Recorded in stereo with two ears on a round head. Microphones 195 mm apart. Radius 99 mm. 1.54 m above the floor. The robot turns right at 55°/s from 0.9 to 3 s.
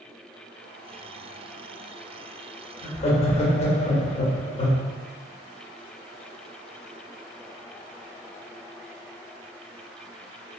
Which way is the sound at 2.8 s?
35° left (ahead or behind).